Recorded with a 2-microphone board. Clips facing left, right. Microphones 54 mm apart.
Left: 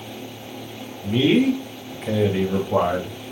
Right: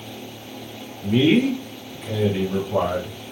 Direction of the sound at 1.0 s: 30° right (ahead or behind).